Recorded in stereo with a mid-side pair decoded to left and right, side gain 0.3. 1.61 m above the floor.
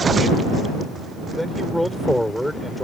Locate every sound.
1.3 s a man speaking: 5° left